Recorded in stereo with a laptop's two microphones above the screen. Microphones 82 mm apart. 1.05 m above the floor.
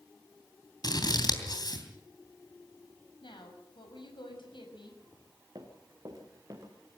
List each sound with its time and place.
0.8 s scissors: 55° left (ahead or behind), 3 m
3.2 s a woman speaking: 85° left, 6 m
5.5 s running footsteps: 50° right (ahead or behind), 3.5 m; by 6.7 s 40° right (ahead or behind), 4 m